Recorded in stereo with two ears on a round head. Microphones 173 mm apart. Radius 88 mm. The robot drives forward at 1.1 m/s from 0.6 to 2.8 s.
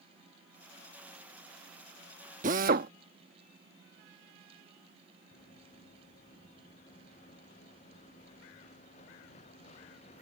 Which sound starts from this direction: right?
A drill, at 2.4 s.